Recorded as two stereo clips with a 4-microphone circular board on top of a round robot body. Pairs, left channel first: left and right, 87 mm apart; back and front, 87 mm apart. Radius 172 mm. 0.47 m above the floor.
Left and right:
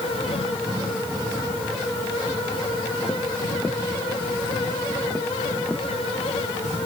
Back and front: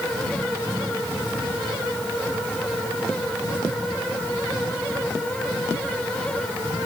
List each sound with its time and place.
Only background noise.